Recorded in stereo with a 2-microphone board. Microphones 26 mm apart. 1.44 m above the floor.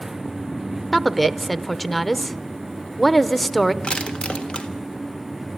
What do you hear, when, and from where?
0.9 s a woman speaking: 5° left (ahead or behind), 0.7 m
3.8 s crushing: 45° left (ahead or behind), 1.6 m